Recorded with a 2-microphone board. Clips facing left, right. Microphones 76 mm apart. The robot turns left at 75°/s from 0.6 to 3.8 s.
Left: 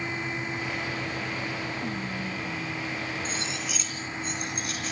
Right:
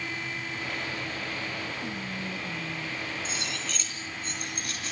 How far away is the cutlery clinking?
About 4 m.